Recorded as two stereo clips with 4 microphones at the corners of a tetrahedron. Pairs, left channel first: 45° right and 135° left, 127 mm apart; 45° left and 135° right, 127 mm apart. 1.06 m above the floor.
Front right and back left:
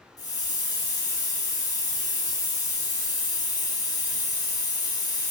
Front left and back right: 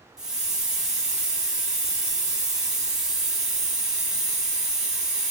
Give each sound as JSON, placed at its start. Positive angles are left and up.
{"t": 0.2, "sound": "a hiss", "azimuth_deg": -55, "distance_m": 0.6}